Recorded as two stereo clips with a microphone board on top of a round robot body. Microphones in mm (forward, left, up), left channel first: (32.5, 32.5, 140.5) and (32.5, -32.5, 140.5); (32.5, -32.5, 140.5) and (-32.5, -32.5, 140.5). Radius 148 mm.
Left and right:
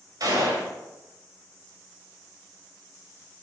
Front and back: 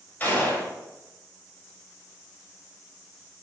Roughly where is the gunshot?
Ahead right.